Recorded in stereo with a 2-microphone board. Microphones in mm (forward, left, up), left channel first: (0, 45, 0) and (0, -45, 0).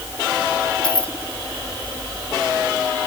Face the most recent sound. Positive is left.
turn(degrees=15)  # may be behind; listen again after turning